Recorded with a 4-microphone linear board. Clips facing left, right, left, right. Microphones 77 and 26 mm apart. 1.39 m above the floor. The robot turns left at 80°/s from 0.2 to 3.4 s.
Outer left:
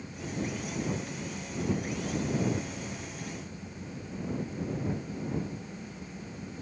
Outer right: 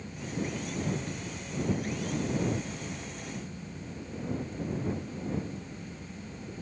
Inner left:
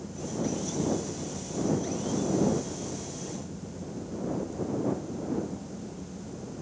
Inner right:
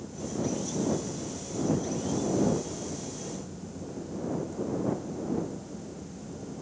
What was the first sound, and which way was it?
Only background noise.